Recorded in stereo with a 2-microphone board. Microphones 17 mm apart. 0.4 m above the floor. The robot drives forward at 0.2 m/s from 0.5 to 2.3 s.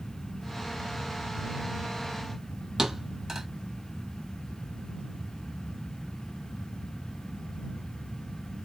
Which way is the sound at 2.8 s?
25° right (ahead or behind).